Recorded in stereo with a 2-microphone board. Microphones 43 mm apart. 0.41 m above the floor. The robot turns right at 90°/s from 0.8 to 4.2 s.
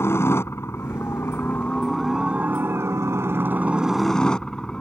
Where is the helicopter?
70° left; by 4.8 s 15° left.